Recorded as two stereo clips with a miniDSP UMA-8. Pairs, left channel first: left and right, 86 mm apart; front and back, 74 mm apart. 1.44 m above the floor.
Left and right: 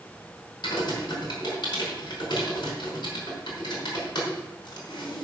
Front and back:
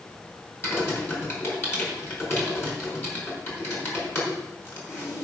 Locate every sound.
0.6 s typing on a keyboard: 55° left, 4.5 m